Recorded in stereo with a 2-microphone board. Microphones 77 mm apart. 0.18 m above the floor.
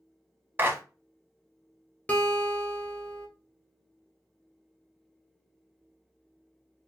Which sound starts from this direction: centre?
A guitar, at 2.1 s.